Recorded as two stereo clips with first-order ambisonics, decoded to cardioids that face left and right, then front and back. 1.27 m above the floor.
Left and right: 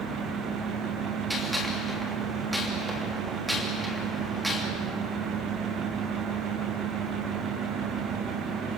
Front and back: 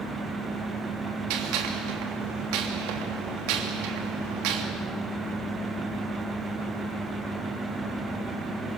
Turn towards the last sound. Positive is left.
turn(degrees=-175)